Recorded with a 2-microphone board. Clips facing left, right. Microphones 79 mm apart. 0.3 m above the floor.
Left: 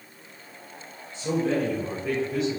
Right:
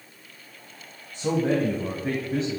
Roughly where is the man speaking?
Right.